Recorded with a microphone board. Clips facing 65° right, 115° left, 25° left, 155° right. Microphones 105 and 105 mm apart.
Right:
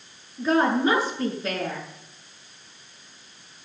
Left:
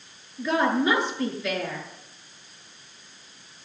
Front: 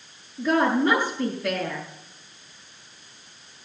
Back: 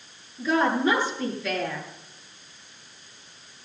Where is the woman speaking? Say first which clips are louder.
Right 2 dB, front 2 dB; 10° right, 7.5 m.